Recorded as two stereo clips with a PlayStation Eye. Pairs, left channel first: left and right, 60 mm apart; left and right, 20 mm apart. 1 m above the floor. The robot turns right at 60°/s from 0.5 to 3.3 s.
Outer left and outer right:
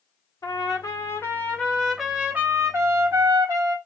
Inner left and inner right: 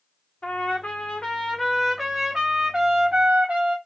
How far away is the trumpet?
About 1.4 m.